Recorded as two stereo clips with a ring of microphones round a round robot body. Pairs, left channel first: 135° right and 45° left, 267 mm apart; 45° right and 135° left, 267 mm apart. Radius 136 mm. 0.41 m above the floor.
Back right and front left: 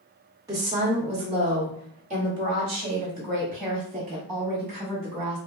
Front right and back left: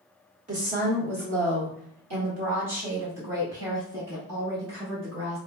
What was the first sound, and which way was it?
A woman speaking, 110° left.